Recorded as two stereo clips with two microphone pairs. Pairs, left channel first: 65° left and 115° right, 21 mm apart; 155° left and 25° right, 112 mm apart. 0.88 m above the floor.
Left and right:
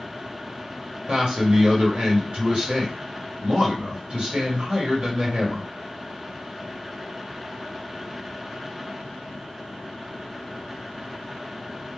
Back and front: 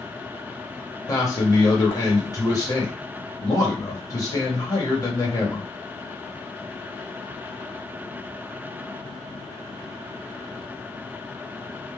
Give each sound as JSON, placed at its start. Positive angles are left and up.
{"t": 1.1, "sound": "a man speaking", "azimuth_deg": -150, "distance_m": 2.0}